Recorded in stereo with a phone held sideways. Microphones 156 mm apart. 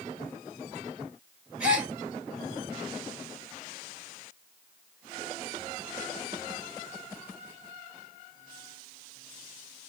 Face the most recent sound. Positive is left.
turn(degrees=-10)  # may be behind; listen again after turning